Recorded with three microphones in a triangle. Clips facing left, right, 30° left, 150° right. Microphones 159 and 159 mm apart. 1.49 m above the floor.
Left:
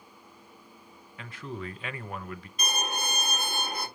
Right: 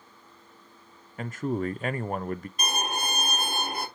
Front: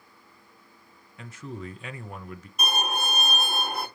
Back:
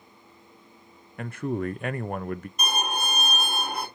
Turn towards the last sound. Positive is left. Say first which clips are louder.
# left 2 dB, front 3 dB
turn(degrees=-55)